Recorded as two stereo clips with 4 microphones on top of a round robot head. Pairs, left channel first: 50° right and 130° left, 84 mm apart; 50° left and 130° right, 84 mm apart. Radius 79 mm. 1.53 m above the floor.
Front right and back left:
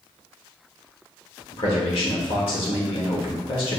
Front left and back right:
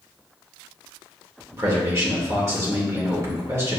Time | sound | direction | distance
1.5 | a man speaking | 70° right | 1.5 m